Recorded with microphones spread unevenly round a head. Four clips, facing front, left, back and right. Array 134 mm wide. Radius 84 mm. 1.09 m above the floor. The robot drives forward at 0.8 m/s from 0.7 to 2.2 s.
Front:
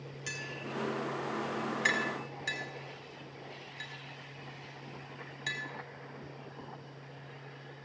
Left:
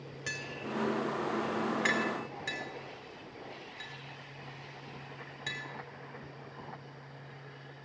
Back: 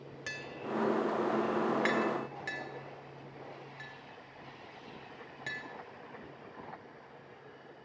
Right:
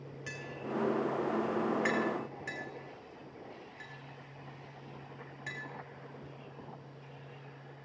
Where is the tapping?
120° left, 3 m; by 5.6 s 135° left, 4 m.